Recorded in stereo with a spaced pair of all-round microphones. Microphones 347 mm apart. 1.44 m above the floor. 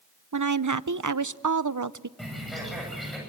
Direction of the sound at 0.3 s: 65° right (ahead or behind).